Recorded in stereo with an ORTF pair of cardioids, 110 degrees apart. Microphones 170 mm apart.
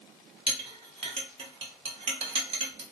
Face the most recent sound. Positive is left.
turn(degrees=-35)